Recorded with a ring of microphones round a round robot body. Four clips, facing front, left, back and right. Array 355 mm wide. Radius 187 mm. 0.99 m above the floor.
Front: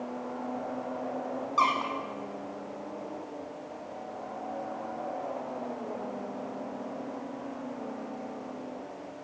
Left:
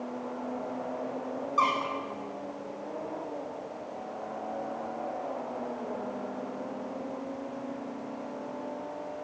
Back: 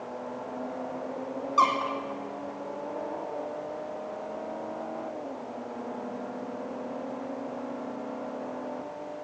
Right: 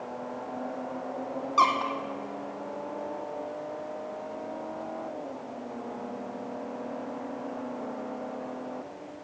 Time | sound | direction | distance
1.6 | a squeak | 90° right | 3 m